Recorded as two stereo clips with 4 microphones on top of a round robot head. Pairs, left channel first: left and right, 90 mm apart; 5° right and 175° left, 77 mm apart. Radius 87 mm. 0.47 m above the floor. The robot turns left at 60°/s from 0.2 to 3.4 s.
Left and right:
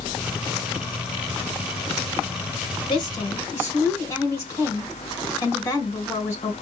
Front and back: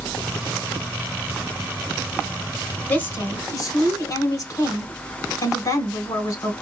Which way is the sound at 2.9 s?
60° left.